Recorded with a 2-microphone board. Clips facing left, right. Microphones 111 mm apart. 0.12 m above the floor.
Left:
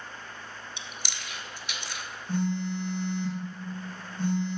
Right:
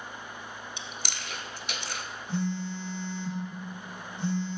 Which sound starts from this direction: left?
A phone buzzing, at 2.3 s.